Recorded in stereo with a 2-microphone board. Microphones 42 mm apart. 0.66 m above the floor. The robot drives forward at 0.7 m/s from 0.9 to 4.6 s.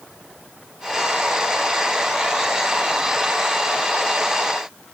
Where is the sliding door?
I don't hear a sliding door.